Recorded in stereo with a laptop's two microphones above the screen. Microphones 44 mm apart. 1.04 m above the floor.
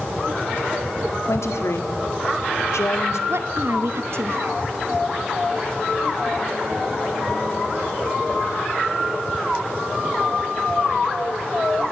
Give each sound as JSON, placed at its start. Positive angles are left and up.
{"t": 1.3, "sound": "a woman speaking", "side_deg": 85, "distance_m": 2.0}
{"t": 3.3, "sound": "a woman speaking", "side_deg": -65, "distance_m": 1.3}